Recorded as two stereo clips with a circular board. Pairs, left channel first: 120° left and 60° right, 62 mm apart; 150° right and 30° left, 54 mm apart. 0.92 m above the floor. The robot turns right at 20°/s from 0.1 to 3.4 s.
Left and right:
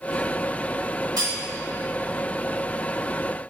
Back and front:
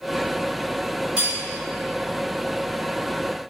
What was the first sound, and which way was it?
Cutlery clinking, 40° right.